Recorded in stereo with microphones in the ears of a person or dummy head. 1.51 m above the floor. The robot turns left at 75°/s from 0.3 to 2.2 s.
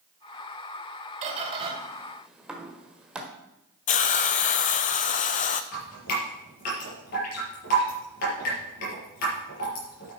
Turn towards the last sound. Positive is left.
turn(degrees=45)  # may be behind; listen again after turning